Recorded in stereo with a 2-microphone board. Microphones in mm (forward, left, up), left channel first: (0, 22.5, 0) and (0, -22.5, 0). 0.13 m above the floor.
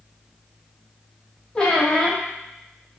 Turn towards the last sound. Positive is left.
turn(degrees=20)  # may be behind; listen again after turning